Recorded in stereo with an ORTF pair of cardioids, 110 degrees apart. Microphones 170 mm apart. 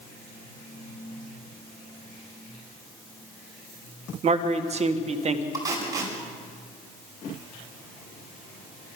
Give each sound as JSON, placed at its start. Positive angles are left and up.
{"t": 4.2, "sound": "a man speaking", "azimuth_deg": -40, "distance_m": 1.8}
{"t": 5.5, "sound": "tape being pulled", "azimuth_deg": -20, "distance_m": 8.5}